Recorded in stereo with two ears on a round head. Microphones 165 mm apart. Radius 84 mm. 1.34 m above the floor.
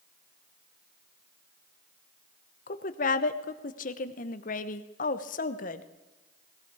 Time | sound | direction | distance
2.7 | a woman speaking | 45° left (ahead or behind) | 0.8 m